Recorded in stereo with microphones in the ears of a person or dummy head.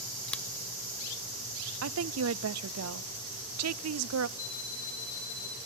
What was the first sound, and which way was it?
Scissors, 5° left (ahead or behind).